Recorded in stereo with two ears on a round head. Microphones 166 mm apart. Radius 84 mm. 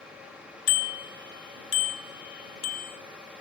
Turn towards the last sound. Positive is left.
turn(degrees=75)  # may be behind; listen again after turning